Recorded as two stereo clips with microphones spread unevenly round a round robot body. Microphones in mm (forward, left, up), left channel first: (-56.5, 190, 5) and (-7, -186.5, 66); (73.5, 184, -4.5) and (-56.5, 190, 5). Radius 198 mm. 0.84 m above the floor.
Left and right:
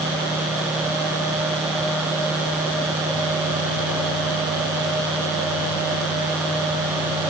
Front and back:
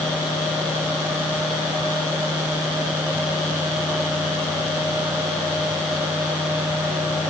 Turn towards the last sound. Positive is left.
No sound to turn to.